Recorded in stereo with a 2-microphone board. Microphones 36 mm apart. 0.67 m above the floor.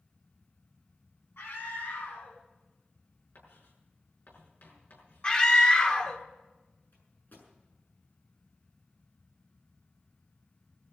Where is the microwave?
60° left (ahead or behind), 7 m.